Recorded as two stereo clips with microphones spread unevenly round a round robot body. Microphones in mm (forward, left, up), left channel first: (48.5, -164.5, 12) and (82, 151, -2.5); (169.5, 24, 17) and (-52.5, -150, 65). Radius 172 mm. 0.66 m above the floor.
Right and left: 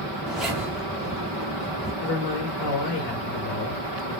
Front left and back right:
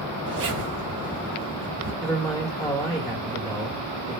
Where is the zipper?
175° left, 0.7 m.